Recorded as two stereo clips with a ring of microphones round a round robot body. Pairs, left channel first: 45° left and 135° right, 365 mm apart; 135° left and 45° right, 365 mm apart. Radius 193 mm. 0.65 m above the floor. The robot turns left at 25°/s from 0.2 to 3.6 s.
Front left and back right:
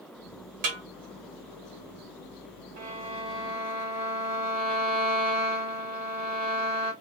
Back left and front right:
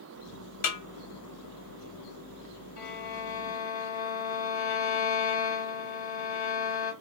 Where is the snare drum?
175° right, 1.2 m; by 0.8 s straight behind, 1.2 m.